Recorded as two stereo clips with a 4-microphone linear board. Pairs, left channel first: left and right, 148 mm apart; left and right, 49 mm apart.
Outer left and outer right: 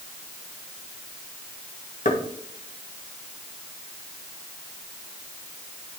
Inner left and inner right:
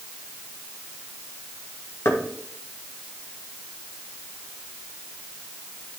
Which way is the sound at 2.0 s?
65° left (ahead or behind).